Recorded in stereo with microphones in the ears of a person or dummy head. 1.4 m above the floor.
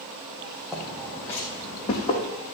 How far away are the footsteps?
About 3.5 m.